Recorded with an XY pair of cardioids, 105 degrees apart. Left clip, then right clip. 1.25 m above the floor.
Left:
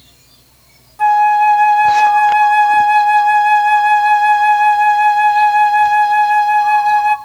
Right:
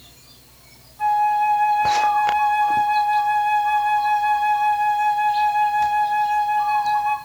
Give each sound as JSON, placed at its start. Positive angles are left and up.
{"t": 1.0, "sound": "a flute", "azimuth_deg": 65, "distance_m": 0.8}